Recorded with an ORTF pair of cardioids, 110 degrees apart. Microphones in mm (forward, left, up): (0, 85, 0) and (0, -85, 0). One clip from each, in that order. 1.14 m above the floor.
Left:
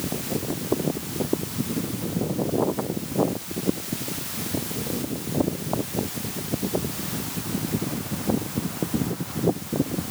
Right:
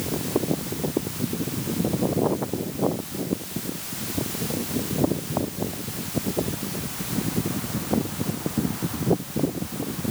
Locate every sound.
Only background noise.